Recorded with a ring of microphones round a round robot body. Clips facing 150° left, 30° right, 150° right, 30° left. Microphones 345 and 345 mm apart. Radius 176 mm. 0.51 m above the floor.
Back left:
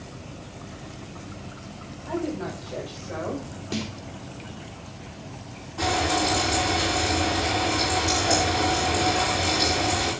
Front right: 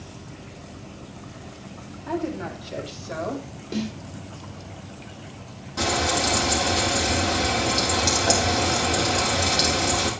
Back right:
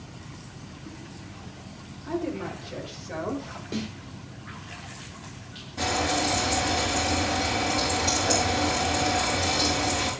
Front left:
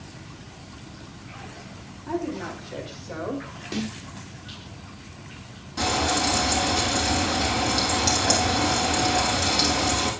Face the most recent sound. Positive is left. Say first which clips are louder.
# even, front left 1 dB
turn(degrees=-25)